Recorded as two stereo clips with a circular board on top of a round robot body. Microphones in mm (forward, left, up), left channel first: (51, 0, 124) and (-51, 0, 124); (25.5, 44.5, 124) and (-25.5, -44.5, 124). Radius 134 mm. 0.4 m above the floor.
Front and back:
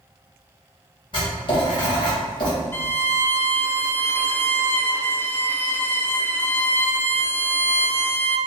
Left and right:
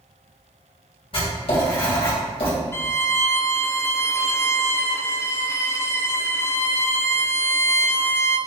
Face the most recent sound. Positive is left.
turn(degrees=35)